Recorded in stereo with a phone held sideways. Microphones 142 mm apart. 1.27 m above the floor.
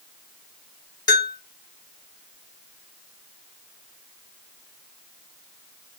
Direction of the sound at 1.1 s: 30° left (ahead or behind).